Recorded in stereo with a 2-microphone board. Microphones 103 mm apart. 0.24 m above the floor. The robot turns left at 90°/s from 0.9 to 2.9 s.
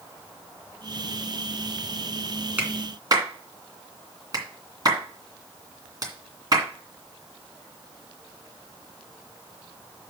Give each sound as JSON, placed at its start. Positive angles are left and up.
{"t": 2.6, "sound": "a clap", "side_deg": -15, "distance_m": 2.5}